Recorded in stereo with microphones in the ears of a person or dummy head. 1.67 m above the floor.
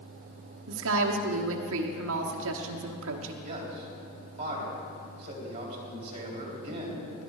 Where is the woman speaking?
75° right (ahead or behind), 1.1 m.